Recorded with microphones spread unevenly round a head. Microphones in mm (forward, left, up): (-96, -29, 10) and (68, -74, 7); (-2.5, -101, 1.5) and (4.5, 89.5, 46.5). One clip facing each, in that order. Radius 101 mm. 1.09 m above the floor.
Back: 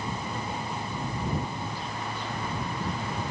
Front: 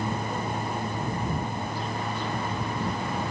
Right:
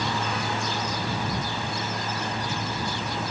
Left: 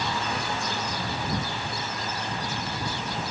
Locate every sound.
Only background noise.